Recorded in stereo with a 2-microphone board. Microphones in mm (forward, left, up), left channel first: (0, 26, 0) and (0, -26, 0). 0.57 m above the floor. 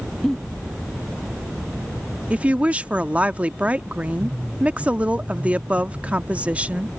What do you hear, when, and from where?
0.2 s a giggle: 5° left (ahead or behind)
2.3 s a woman speaking: 25° right (ahead or behind)